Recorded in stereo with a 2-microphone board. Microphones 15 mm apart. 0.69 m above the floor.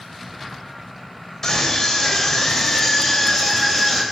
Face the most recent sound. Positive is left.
turn(degrees=25)  # may be behind; listen again after turning